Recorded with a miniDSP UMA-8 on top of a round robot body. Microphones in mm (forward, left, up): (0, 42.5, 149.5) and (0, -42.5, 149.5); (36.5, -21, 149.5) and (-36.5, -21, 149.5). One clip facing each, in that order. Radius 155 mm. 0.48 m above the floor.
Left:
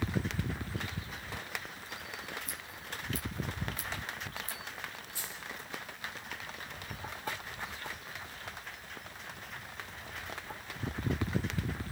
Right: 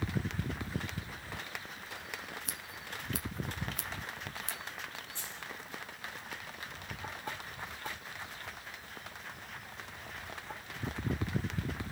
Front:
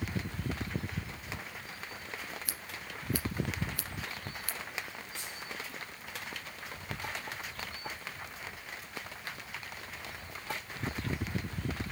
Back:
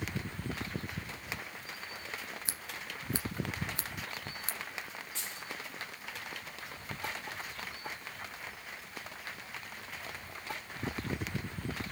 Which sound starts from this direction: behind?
A dropped coin, at 5.2 s.